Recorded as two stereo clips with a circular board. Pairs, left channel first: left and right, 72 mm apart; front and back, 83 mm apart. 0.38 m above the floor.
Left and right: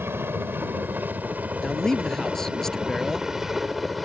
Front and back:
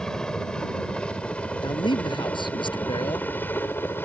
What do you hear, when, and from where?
0.0 s a helicopter: 75° right; by 4.1 s straight ahead
1.6 s a man speaking: 10° left